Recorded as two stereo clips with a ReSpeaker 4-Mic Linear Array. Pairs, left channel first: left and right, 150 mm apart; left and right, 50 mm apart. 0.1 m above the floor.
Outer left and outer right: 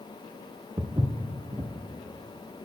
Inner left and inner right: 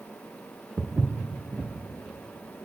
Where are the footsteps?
25° right (ahead or behind), 0.7 m.